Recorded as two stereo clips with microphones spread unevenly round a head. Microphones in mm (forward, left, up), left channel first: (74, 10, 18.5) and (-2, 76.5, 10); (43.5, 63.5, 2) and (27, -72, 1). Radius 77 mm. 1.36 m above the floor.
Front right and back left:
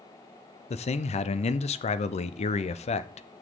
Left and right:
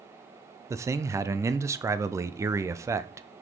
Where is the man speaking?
30° right, 0.5 m.